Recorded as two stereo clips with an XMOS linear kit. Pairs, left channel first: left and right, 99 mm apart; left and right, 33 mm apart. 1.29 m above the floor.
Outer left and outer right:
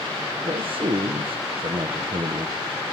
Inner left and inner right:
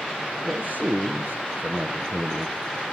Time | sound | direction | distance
0.4 | a man speaking | 65° right (ahead or behind) | 0.7 m